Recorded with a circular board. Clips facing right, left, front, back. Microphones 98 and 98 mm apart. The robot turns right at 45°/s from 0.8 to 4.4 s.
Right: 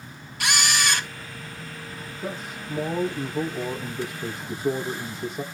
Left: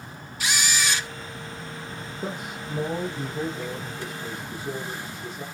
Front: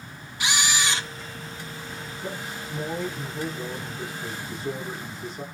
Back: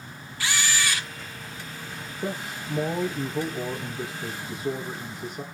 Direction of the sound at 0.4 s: 70° right.